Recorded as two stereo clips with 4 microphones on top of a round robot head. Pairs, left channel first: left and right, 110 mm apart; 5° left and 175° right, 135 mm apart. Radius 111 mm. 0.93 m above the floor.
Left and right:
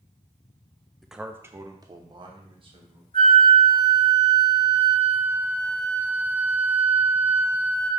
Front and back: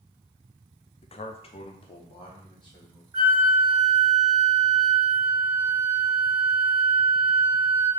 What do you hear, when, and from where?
1.0 s a man speaking: 5° left, 0.6 m; by 3.0 s 55° right, 1.5 m
3.1 s a flute: 120° left, 1.9 m